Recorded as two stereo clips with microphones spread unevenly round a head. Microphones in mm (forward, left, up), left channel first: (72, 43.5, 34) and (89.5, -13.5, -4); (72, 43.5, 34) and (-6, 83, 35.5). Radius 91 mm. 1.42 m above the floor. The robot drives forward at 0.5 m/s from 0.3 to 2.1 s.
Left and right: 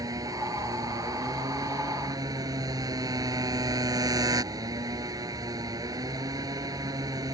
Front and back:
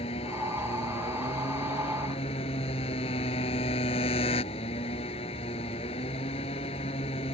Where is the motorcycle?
55° right.